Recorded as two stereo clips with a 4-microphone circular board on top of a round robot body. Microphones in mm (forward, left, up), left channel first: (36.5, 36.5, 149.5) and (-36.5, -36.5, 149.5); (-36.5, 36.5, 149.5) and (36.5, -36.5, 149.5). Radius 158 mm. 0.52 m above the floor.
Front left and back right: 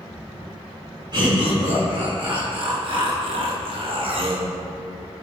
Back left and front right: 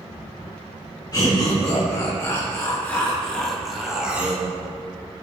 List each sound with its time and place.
1.1 s laughter: straight behind, 3.5 m; by 4.5 s 115° right, 2.5 m